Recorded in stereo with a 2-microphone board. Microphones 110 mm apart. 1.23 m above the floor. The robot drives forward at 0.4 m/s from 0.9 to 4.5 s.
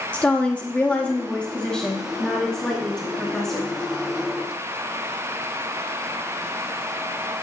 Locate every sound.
0.1 s a woman speaking: 15° left (ahead or behind), 0.6 m; by 3.7 s 5° left (ahead or behind), 1.7 m